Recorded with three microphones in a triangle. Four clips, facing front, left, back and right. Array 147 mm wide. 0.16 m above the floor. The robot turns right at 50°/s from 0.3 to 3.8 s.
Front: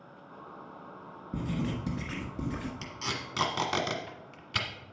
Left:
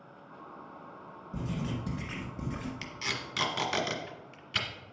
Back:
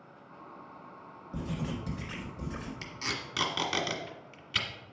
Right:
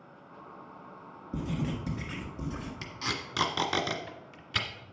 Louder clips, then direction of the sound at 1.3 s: Right 2 dB, front 3 dB; 35° right.